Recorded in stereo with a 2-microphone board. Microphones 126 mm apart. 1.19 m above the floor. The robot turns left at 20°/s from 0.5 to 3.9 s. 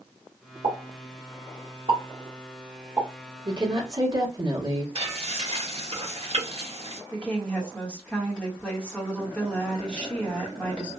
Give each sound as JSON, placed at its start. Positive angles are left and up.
{"t": 0.6, "sound": "a pop", "side_deg": -65, "distance_m": 1.3}
{"t": 3.5, "sound": "a woman speaking", "side_deg": -40, "distance_m": 1.4}
{"t": 5.0, "sound": "frying", "side_deg": -50, "distance_m": 1.5}
{"t": 7.1, "sound": "a woman speaking", "side_deg": 10, "distance_m": 1.5}